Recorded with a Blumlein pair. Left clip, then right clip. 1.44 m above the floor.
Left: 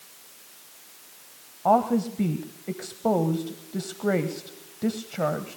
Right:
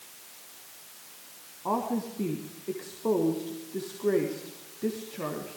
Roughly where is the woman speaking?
Ahead left.